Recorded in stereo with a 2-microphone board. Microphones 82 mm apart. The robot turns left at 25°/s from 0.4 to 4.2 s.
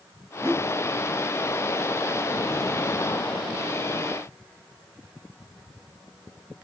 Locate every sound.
0.4 s a whoosh: 40° right (ahead or behind), 2.5 m